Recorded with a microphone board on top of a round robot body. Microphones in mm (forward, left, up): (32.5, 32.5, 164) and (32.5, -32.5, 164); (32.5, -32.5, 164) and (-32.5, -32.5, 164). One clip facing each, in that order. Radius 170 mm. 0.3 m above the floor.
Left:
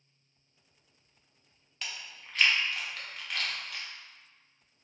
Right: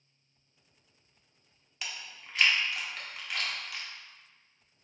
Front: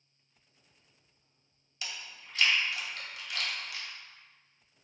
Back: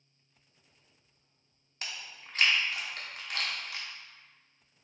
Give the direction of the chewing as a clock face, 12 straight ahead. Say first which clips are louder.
Even, back 1 dB; 6 o'clock.